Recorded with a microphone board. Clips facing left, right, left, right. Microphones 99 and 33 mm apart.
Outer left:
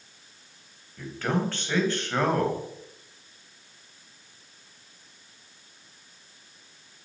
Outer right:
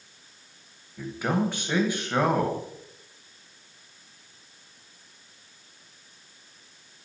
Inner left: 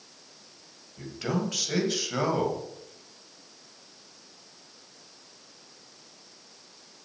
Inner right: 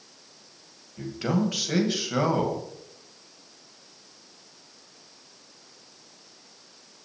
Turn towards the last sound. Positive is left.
turn(degrees=-10)  # may be behind; listen again after turning